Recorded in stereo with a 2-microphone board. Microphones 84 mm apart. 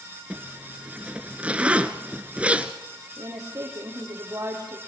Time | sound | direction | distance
0.3 | a zipper | 15° right (ahead or behind) | 1.2 m
3.2 | a woman speaking | 40° right (ahead or behind) | 7 m